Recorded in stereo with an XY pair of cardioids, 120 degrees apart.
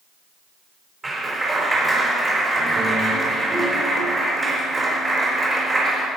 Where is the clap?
20° right, 4.5 m.